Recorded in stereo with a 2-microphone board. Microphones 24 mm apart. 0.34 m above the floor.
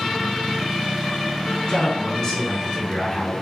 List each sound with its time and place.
1.7 s a man speaking: 35° left (ahead or behind), 4.5 m; by 3.3 s 15° left (ahead or behind), 4.5 m